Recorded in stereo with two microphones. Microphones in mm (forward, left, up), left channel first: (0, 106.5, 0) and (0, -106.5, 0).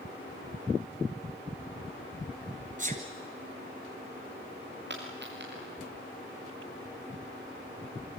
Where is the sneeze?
40° right (ahead or behind), 1.8 m.